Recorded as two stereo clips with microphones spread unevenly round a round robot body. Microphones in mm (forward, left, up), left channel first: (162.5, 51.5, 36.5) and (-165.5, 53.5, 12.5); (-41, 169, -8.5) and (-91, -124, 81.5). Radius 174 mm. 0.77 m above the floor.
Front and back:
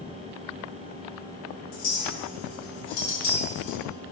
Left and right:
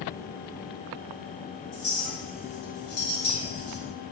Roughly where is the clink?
Ahead.